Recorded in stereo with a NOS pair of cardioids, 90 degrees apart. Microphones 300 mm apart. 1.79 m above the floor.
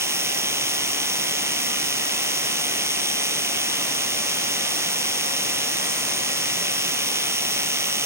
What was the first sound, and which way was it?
A machine running, 10° right.